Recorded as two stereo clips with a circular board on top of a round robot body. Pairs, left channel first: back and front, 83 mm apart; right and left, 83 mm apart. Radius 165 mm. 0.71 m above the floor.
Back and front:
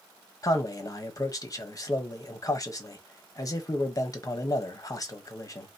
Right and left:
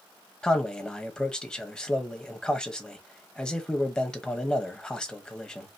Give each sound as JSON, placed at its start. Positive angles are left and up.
{"t": 0.4, "sound": "a man speaking", "azimuth_deg": -165, "distance_m": 1.4}